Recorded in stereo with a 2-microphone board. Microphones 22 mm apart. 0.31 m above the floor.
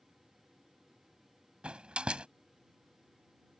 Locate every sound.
1.6 s a door slam: 60° right (ahead or behind)